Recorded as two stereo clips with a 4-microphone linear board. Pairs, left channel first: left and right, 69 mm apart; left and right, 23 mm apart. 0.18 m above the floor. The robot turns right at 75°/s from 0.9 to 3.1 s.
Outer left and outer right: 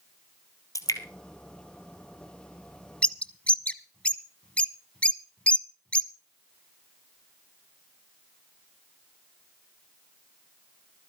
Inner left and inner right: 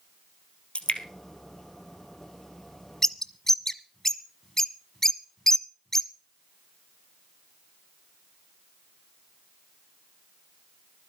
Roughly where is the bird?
Centre.